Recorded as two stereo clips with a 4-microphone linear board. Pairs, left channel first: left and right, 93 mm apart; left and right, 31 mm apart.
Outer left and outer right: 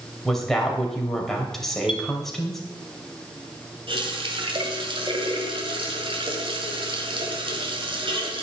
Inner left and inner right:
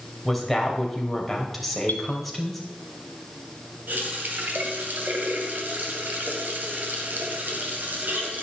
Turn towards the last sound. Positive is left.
turn(degrees=-70)  # may be behind; listen again after turning